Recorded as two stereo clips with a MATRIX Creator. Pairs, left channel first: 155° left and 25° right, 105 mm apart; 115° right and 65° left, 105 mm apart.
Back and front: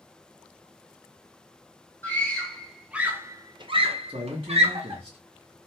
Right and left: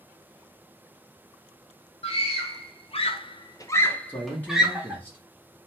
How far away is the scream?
About 1.1 m.